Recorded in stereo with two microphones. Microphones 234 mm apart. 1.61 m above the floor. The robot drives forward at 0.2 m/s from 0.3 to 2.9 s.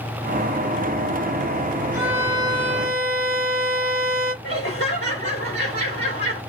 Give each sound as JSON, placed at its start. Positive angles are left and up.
{"t": 1.9, "sound": "a violin", "side_deg": -15, "distance_m": 1.7}
{"t": 4.4, "sound": "laughter", "side_deg": 60, "distance_m": 1.1}